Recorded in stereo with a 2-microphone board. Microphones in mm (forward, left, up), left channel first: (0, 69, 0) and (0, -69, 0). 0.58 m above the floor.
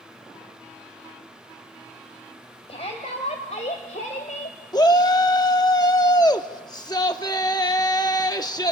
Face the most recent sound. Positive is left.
turn(degrees=30)  # may be behind; listen again after turning